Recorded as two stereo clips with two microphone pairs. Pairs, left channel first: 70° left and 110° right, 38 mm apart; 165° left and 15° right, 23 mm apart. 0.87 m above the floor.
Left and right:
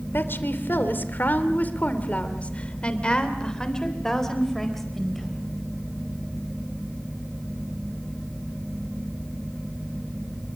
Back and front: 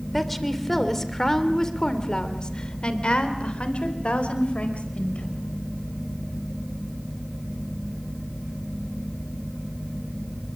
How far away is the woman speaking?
About 3 m.